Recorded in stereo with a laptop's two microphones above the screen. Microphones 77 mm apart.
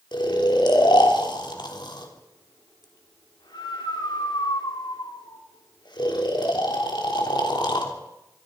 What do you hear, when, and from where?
0.1 s snoring: 70° left (ahead or behind), 3.5 m